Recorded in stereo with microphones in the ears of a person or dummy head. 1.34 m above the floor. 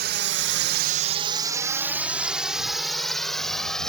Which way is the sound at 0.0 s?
50° right (ahead or behind).